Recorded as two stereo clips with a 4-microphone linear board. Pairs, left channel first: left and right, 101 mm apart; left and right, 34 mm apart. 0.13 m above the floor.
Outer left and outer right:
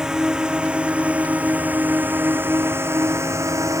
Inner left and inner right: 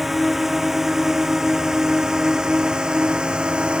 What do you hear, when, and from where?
0.0 s a drone: 5° right (ahead or behind); by 3.8 s 30° right (ahead or behind)